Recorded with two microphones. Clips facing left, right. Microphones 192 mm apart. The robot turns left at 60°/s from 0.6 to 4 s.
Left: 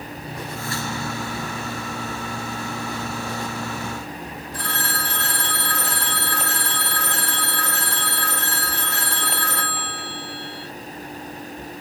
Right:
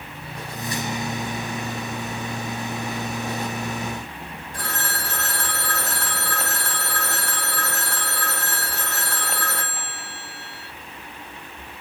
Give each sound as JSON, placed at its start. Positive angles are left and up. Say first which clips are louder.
{"t": 4.5, "sound": "a phone ringing", "louder": "left 1 dB", "side_deg": -45, "distance_m": 1.8}